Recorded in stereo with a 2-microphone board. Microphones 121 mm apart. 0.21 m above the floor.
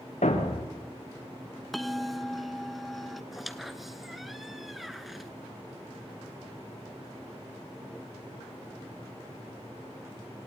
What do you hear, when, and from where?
0.2 s a thud: 80° left, 3.5 m
1.7 s a bell: centre (ahead or behind), 0.8 m
3.3 s a squeak: centre (ahead or behind), 0.9 m